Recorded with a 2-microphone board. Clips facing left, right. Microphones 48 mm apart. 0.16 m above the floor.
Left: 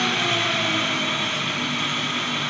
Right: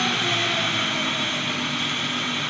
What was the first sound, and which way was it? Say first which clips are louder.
An engine running: left 1 dB; 35° left (ahead or behind).